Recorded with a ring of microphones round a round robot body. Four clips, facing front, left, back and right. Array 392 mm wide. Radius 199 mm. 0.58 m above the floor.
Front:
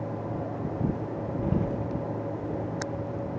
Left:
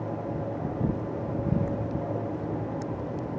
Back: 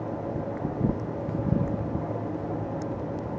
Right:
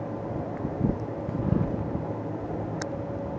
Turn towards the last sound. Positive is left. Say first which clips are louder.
# right 2 dB, even
turn(degrees=-25)